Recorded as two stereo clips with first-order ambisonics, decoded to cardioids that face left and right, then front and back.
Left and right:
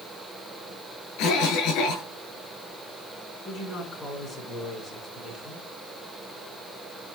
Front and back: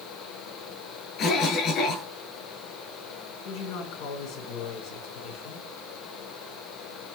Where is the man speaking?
10° left, 8 m.